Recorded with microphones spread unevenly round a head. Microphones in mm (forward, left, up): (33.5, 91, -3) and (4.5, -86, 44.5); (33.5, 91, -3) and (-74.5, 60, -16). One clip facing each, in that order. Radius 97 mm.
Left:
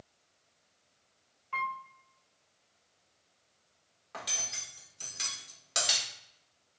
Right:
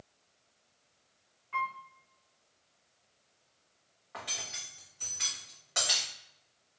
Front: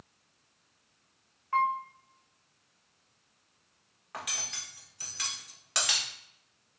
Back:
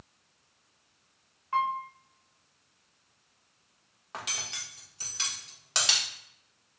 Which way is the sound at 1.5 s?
120° left.